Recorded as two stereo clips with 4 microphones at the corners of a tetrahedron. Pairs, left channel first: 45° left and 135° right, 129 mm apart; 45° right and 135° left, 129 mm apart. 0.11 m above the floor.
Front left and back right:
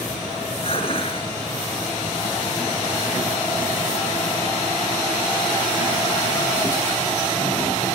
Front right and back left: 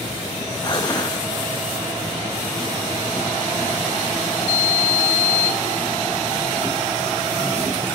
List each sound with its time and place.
0.6 s dishes clattering: 10° left, 1.6 m